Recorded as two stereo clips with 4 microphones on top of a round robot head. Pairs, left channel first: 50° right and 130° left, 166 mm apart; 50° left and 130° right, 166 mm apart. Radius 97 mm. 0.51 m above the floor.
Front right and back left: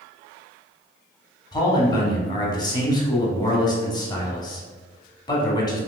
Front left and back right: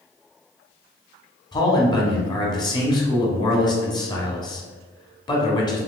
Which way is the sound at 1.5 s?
Straight ahead.